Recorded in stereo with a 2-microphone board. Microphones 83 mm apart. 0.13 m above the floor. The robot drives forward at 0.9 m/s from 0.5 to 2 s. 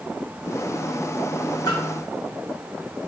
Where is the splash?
45° left (ahead or behind), 1.8 m.